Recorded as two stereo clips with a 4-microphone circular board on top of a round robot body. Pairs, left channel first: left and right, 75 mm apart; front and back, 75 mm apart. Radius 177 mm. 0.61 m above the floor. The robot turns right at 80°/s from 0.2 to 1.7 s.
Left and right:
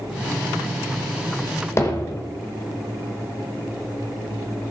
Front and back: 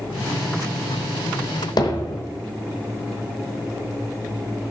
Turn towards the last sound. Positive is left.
turn(degrees=35)